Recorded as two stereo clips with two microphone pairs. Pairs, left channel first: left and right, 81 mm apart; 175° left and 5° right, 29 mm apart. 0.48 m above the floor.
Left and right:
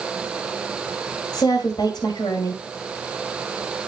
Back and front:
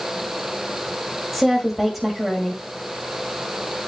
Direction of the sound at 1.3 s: 85° left.